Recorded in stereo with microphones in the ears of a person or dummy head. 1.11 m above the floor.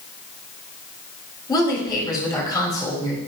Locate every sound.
1.5 s a woman speaking: 20° left (ahead or behind), 5 m